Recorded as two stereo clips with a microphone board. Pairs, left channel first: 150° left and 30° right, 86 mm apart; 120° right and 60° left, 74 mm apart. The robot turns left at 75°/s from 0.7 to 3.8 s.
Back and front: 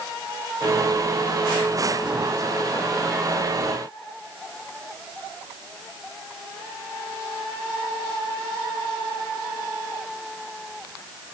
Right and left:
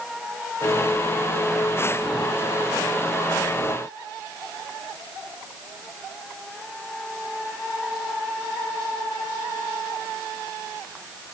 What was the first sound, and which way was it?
Only background noise.